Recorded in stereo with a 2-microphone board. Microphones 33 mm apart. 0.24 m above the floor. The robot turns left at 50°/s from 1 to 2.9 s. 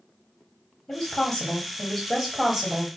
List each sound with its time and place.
0.9 s a woman speaking: 20° left (ahead or behind), 1.0 m; by 2.9 s 10° right (ahead or behind), 1.0 m